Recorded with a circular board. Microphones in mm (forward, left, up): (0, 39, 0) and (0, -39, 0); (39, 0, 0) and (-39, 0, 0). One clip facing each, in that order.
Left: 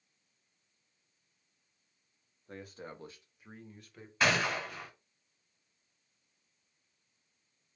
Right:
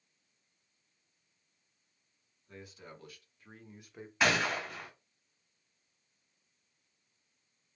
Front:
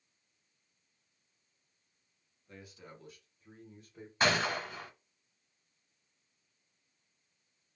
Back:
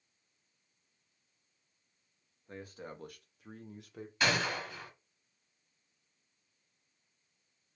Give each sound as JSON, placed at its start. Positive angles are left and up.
{"t": 2.5, "sound": "a man speaking", "azimuth_deg": 125, "distance_m": 0.8}
{"t": 4.2, "sound": "a gunshot", "azimuth_deg": -5, "distance_m": 1.4}